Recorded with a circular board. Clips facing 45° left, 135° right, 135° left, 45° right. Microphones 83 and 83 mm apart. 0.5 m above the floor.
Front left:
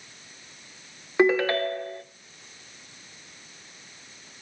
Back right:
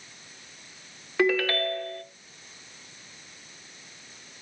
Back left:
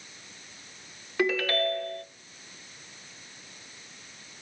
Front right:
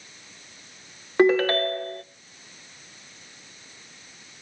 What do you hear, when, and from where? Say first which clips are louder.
1.2 s a ringtone: front left 3 dB, front right 7 dB; 15° right, 0.8 m